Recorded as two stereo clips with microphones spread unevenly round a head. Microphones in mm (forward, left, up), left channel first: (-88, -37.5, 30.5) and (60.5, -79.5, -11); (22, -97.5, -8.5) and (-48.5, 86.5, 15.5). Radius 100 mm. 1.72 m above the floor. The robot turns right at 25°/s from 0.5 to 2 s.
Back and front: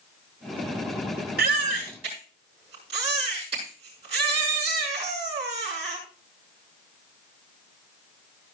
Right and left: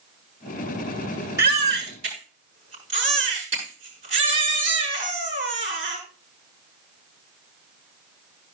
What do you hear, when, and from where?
1.4 s a baby crying: 35° left, 7 m; by 6.0 s 50° left, 7 m